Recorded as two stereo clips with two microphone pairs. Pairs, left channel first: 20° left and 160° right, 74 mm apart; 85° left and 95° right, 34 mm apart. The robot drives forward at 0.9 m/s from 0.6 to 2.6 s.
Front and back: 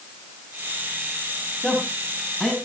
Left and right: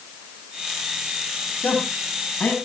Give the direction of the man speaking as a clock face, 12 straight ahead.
9 o'clock.